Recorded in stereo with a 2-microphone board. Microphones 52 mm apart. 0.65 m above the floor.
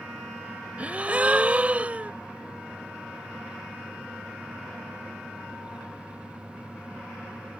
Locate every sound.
0.8 s a gasp: 25° right (ahead or behind)